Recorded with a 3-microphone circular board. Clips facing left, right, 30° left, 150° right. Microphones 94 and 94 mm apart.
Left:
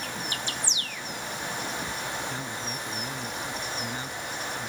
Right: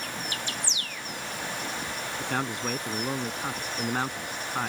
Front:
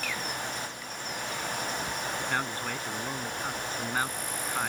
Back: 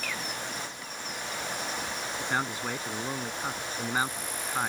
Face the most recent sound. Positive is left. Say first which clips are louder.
# right 4 dB, back 3 dB
turn(degrees=-70)